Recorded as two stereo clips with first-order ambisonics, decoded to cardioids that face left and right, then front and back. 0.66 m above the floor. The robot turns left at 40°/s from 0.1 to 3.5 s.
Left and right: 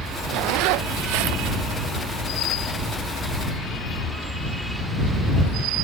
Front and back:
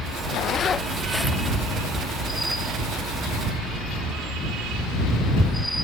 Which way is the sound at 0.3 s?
50° right.